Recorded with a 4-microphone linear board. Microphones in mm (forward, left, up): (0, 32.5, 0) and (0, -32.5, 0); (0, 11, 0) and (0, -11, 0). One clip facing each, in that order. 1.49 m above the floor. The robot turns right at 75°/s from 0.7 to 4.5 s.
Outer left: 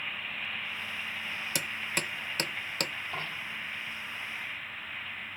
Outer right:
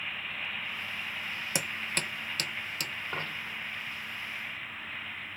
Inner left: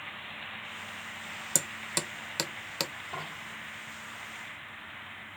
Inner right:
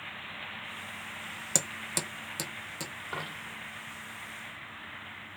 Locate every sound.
1.6 s hammering: 20° right (ahead or behind), 0.6 m; by 2.9 s 55° left (ahead or behind), 0.6 m
3.1 s a dropped coin: 40° right (ahead or behind), 3 m; by 3.6 s 10° right (ahead or behind), 3 m